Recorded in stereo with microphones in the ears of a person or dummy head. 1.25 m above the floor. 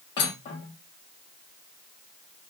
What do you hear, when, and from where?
0.2 s cutlery clinking: 15° left (ahead or behind), 1.2 m